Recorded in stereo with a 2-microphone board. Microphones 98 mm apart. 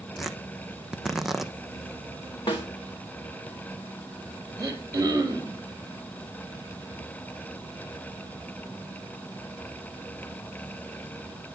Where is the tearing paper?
5° right (ahead or behind), 0.9 m.